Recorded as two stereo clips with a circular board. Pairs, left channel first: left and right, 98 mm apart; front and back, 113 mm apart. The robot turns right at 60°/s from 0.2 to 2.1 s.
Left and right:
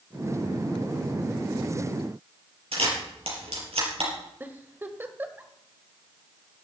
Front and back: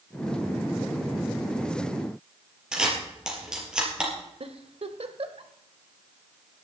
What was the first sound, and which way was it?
A camera shutter, 95° right.